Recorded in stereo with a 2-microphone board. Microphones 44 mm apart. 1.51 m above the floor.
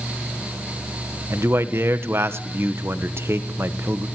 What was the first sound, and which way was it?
A man speaking, 70° right (ahead or behind).